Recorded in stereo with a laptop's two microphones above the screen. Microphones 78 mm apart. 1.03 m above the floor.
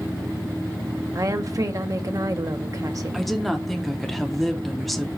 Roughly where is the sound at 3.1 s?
Centre.